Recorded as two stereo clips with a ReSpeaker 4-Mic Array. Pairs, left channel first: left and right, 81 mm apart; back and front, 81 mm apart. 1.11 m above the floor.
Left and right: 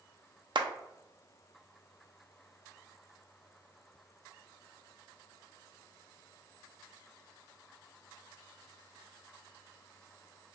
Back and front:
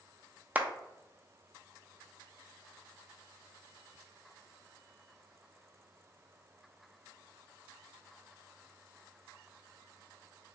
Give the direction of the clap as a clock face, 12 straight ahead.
2 o'clock.